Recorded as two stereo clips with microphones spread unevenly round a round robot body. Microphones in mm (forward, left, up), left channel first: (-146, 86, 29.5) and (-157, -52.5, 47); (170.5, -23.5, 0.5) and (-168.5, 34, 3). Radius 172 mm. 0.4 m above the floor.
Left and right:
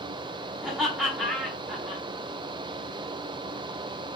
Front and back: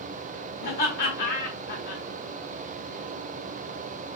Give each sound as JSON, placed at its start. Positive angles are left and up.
{"t": 0.6, "sound": "laughter", "azimuth_deg": 0, "distance_m": 1.4}